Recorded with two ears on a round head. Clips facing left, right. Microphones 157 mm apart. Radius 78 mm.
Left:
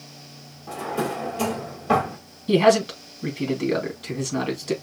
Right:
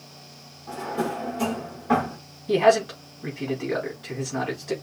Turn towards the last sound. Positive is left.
turn(degrees=45)  # may be behind; listen again after turning